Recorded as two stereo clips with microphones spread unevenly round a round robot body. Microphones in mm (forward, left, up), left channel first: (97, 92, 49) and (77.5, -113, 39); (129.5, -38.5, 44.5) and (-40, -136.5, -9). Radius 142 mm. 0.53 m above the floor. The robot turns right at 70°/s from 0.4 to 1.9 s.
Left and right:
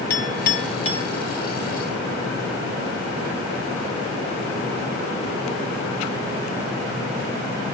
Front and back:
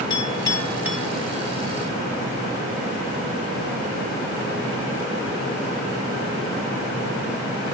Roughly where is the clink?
Left.